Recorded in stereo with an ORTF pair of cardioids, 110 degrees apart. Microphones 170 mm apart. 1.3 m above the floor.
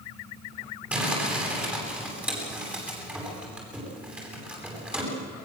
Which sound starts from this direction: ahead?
Crumpling, at 0.9 s.